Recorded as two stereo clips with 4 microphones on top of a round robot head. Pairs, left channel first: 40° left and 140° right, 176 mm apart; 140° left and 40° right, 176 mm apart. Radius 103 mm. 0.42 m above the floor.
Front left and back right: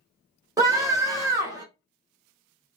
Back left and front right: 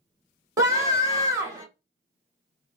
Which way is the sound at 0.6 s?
90° right.